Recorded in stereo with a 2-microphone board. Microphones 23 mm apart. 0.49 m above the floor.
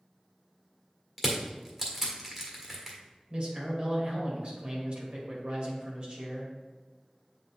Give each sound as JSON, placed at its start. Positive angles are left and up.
{"t": 1.2, "sound": "crushing", "side_deg": -15, "distance_m": 1.5}
{"t": 3.3, "sound": "a man speaking", "side_deg": -50, "distance_m": 2.0}